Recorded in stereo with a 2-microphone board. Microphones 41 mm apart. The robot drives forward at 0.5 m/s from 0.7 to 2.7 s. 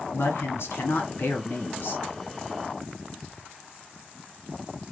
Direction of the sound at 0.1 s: 70° left (ahead or behind).